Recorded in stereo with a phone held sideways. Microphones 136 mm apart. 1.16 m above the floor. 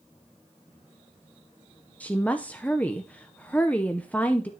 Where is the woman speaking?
10° left (ahead or behind), 0.6 m.